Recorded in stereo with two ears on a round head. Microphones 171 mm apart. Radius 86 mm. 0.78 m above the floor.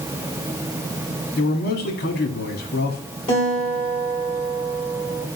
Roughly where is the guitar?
Left.